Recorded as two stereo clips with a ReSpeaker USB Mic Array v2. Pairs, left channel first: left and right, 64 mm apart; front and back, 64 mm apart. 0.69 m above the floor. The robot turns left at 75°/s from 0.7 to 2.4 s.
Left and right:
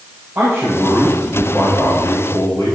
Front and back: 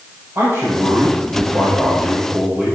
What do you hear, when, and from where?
0.3 s a man speaking: 135° right, 4 m; by 2.8 s 95° left, 4 m